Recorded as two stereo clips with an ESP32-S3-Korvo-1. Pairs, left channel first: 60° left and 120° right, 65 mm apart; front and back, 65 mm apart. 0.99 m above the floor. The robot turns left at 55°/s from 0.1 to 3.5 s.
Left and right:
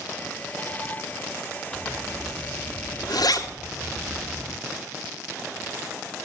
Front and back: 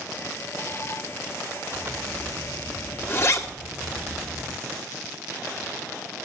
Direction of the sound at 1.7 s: 130° left.